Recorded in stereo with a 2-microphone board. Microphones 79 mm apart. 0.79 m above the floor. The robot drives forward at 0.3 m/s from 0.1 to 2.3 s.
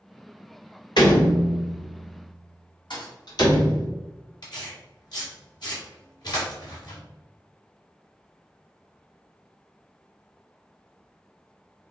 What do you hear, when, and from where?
1.0 s a door slam: 75° left (ahead or behind), 1.5 m; by 3.9 s 60° left (ahead or behind), 1.7 m
2.9 s a thud: 70° left (ahead or behind), 1.5 m
4.4 s tearing paper: 60° left (ahead or behind), 2.0 m